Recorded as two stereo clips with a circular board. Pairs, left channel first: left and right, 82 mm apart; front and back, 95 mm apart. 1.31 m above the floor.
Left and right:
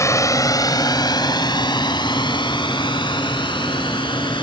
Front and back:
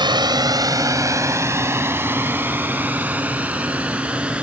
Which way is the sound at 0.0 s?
140° left.